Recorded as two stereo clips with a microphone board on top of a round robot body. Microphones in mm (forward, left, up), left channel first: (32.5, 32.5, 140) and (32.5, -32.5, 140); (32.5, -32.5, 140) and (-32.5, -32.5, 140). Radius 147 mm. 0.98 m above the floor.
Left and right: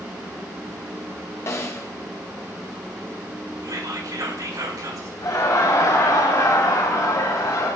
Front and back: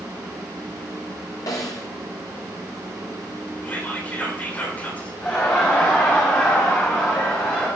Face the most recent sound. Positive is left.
turn(degrees=65)